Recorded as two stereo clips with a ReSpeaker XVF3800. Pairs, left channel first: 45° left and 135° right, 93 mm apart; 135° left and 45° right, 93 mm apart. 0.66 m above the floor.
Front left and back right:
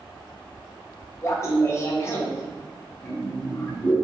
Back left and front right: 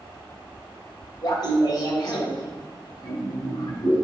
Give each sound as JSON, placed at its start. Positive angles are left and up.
{"t": 1.2, "sound": "laughter", "azimuth_deg": 100, "distance_m": 2.5}